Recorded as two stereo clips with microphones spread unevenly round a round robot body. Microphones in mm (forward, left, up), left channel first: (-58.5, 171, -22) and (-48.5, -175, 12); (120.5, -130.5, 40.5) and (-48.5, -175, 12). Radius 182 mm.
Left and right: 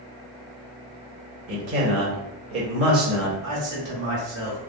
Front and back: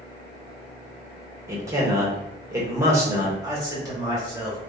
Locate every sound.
1.5 s a man speaking: 115° right, 1.3 m
3.4 s a man speaking: 115° right, 1.7 m